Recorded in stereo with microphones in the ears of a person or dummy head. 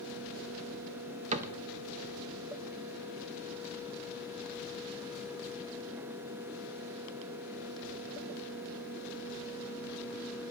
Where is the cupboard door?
30° right (ahead or behind), 0.6 m.